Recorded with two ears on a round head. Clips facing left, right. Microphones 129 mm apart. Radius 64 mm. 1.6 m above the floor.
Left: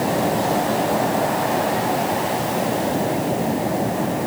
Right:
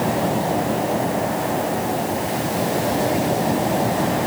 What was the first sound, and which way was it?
Only background noise.